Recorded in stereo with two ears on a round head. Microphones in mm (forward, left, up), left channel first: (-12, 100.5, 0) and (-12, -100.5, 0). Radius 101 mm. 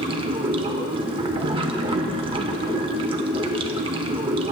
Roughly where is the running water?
Right.